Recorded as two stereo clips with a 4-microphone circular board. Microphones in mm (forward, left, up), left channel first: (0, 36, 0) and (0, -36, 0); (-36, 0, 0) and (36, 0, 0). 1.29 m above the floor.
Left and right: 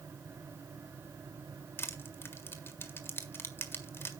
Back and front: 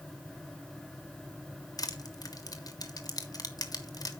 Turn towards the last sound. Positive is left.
turn(degrees=150)